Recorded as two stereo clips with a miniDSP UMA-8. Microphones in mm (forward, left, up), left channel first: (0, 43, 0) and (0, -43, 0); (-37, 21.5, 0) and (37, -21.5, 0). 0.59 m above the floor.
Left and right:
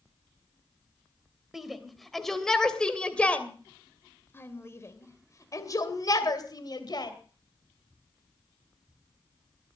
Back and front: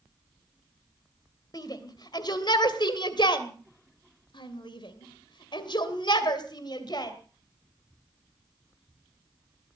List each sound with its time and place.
1.5 s a shout: 175° right, 3 m; by 7.1 s 120° left, 3 m